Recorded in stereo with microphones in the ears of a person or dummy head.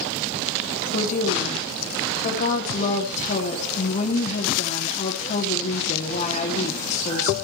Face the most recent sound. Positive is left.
turn(degrees=40)  # may be behind; listen again after turning